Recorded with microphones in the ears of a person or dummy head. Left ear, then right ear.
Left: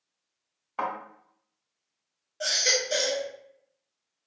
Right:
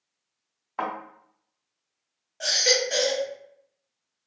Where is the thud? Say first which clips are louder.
Right 1 dB; 10° left (ahead or behind), 1.8 m.